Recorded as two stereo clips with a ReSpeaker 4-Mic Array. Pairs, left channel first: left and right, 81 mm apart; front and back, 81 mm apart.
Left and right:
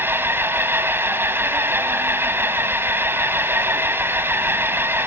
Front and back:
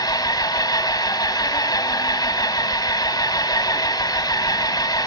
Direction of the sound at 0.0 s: 30° right.